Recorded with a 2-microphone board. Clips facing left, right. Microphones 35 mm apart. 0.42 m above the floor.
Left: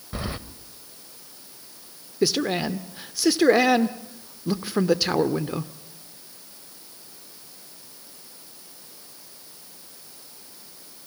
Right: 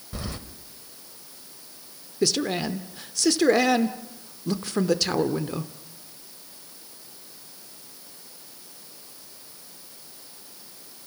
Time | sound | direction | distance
0.1 | keys jangling | 25° left (ahead or behind) | 1.2 m
2.2 | a man speaking | 15° left (ahead or behind) | 0.9 m